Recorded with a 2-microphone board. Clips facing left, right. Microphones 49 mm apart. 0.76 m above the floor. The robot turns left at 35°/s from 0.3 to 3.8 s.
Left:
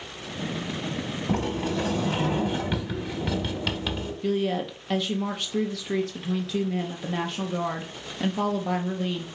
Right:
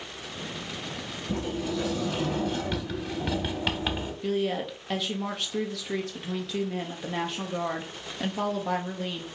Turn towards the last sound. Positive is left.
turn(degrees=0)  # may be behind; listen again after turning